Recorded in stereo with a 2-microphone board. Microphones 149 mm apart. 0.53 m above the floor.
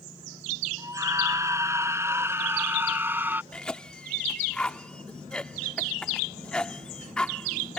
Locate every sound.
0.8 s a scream: 20° right (ahead or behind); by 3.4 s 10° right (ahead or behind)
3.5 s a cough: 5° left (ahead or behind)